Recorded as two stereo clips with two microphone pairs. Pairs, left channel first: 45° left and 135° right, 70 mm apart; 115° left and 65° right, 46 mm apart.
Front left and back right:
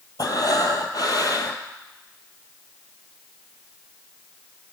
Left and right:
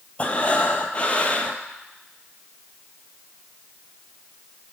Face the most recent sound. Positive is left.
turn(degrees=55)